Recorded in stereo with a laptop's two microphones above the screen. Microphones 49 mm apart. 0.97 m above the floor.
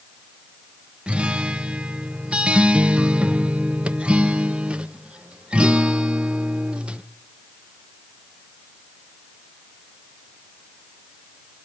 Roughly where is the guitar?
Centre.